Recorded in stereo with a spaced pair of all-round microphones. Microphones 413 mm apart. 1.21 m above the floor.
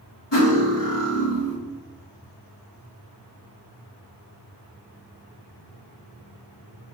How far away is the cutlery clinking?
About 1.4 m.